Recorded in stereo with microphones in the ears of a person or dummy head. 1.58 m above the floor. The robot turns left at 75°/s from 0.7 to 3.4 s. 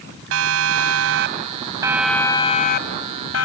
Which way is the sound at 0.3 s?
75° right (ahead or behind).